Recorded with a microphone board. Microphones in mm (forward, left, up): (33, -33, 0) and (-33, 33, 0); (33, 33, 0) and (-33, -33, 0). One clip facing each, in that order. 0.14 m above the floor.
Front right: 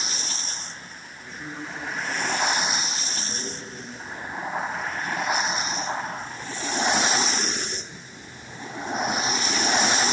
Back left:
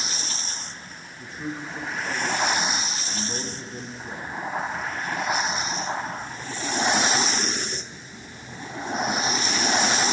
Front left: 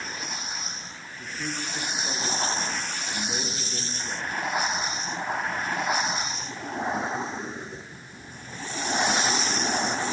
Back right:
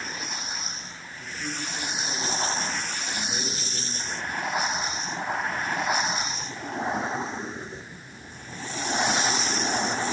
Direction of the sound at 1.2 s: 65° left.